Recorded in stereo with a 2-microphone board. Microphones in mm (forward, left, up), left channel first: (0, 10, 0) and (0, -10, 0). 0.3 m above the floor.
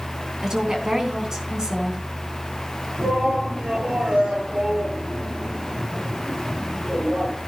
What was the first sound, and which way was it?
A woman speaking, 30° right (ahead or behind).